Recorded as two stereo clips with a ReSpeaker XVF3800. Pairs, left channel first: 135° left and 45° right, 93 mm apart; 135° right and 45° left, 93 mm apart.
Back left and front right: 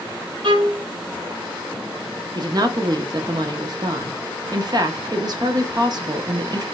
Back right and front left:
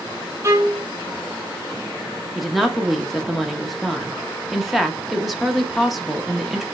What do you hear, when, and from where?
0.4 s a violin: 15° right, 0.9 m
2.4 s a woman speaking: 45° right, 0.8 m